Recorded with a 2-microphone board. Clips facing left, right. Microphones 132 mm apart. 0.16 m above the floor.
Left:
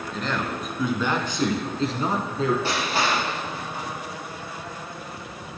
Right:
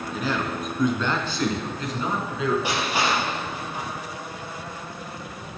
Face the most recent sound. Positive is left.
turn(degrees=-15)  # may be behind; listen again after turning